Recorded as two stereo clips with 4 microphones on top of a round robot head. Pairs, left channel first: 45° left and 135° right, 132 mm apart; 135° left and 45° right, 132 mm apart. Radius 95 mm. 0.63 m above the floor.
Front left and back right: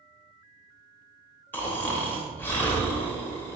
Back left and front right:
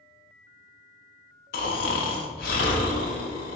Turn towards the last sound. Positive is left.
turn(degrees=120)